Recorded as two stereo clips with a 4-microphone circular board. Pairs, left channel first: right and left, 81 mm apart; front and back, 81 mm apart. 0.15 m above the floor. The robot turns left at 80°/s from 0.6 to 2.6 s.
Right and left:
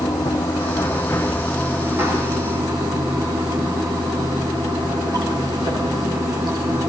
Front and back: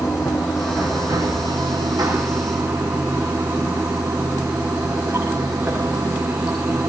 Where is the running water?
100° right, 8 m; by 6.9 s 100° left, 8 m.